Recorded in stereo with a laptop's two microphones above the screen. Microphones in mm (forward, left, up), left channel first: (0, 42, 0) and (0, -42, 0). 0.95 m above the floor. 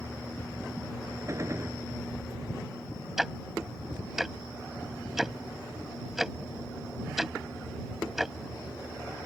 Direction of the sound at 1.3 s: 35° right (ahead or behind).